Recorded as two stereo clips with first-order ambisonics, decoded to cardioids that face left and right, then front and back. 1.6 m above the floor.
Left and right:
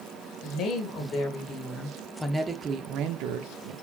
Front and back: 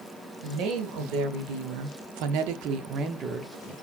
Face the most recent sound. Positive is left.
turn(degrees=-95)